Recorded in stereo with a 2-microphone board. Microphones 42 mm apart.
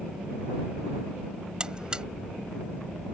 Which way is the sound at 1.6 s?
20° right (ahead or behind).